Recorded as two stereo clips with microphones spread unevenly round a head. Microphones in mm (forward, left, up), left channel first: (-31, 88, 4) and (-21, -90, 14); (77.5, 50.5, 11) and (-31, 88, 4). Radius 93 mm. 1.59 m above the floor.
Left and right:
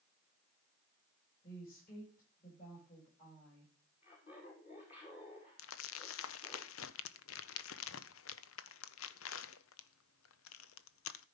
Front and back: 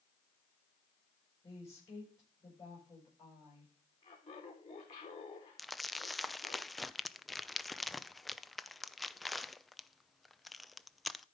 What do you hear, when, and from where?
1.4 s a woman speaking: 45° left, 8.5 m
4.0 s laughter: 30° left, 2 m
5.6 s crumpling: 70° left, 0.6 m